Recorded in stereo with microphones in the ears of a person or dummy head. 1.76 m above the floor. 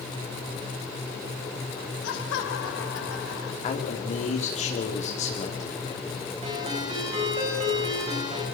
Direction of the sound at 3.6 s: 35° left (ahead or behind).